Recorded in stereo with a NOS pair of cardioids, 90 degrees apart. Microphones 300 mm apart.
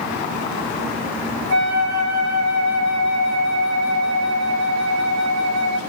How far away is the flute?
About 3 m.